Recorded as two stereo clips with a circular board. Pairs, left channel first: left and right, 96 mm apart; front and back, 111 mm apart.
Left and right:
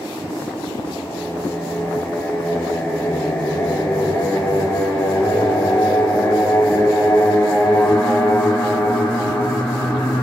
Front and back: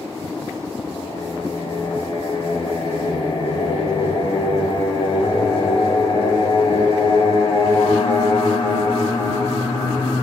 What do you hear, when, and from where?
0.8 s singing: 20° left, 0.6 m